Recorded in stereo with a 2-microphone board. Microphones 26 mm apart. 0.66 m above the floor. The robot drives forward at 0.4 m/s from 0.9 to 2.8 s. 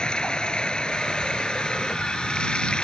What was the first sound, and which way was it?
Running water, 35° left (ahead or behind).